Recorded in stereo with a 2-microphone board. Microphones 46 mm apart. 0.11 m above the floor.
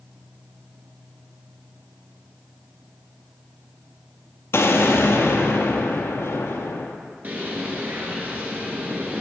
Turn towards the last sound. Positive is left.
turn(degrees=-35)  # may be behind; listen again after turning